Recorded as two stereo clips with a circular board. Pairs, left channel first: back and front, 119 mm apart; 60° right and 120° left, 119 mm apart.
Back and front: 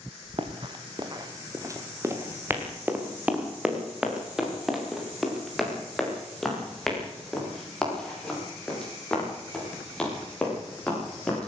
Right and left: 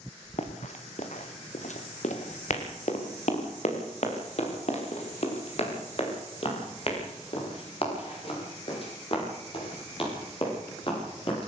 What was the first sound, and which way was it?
Running footsteps, 40° right.